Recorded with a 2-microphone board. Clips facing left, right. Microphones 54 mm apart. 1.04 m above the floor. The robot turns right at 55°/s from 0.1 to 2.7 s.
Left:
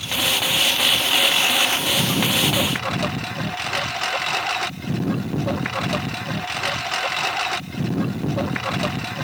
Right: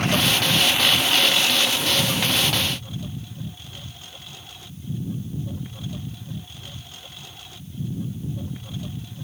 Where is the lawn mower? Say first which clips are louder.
Right 2 dB; 50° right; by 9.2 s 90° left.